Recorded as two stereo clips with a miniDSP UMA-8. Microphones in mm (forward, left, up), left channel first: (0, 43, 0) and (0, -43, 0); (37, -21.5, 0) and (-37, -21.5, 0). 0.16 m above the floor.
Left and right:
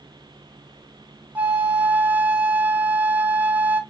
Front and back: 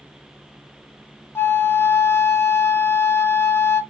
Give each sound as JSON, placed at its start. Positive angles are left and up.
{"t": 1.4, "sound": "a flute", "azimuth_deg": -35, "distance_m": 0.5}